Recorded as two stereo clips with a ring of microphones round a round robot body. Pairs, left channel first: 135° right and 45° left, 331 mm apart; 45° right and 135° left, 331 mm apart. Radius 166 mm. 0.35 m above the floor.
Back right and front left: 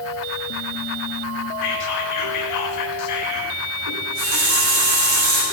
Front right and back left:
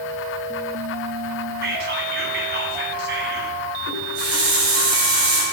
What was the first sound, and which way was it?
Whispering, 165° right.